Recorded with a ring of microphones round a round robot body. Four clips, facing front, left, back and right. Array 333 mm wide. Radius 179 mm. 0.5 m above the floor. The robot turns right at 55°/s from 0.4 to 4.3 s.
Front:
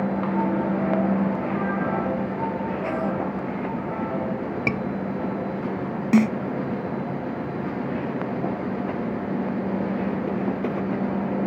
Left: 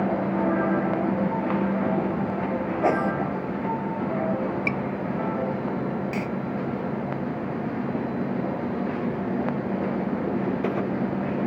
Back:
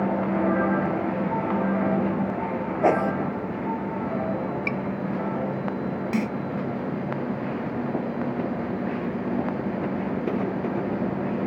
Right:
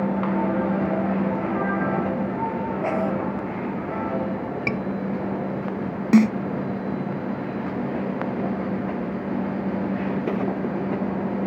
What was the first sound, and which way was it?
A whoosh, 160° left.